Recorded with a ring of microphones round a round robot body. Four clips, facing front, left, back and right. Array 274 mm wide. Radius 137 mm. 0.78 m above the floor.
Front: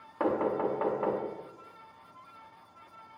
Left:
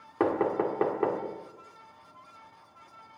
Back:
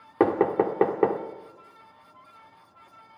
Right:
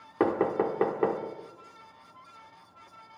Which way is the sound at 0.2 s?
175° right.